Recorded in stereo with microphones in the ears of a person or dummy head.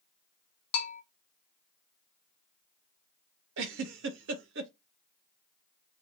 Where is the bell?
30° left (ahead or behind), 0.8 m.